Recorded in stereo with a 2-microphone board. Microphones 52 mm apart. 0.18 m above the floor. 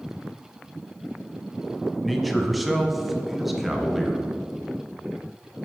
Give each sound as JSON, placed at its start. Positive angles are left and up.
{"t": 2.0, "sound": "a man speaking", "side_deg": 0, "distance_m": 1.2}